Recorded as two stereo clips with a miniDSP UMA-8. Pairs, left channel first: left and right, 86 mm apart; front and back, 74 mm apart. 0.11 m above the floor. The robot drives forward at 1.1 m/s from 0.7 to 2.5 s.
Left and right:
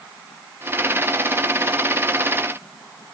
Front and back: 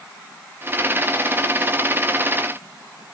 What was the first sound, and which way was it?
Only background noise.